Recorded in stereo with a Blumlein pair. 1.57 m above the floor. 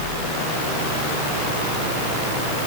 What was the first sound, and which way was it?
Only background noise.